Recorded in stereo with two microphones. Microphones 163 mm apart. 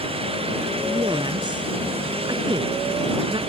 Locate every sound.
0.8 s a woman speaking: 30° right (ahead or behind)